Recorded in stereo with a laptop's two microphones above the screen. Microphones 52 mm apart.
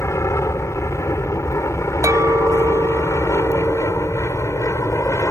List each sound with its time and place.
0.0 s an aircraft: 65° left (ahead or behind); by 5.3 s 70° left (ahead or behind)
2.0 s a clink: 85° right